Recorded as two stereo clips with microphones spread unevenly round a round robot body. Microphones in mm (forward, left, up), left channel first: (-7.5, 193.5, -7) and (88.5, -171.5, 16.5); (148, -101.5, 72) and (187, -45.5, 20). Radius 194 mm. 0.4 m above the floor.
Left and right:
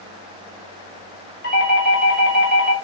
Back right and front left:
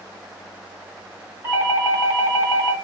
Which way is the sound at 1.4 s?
170° left.